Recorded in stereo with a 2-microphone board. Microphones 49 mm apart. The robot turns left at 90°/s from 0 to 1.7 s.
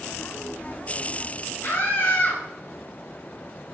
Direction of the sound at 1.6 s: 45° left (ahead or behind).